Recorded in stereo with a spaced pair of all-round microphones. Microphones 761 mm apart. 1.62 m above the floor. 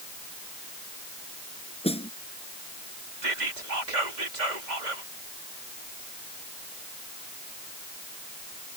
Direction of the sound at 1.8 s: 5° left (ahead or behind).